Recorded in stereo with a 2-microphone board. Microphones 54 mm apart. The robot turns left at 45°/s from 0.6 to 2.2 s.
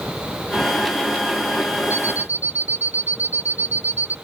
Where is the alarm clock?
60° left (ahead or behind); by 4.2 s 70° left (ahead or behind).